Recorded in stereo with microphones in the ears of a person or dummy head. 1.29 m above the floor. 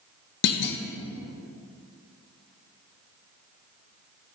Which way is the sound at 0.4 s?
60° left (ahead or behind).